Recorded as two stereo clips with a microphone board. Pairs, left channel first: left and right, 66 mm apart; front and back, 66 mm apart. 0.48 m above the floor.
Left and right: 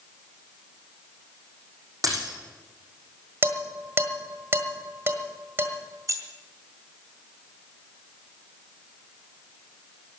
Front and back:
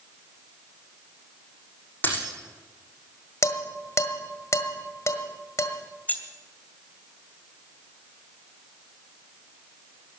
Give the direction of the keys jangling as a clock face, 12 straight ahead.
2 o'clock.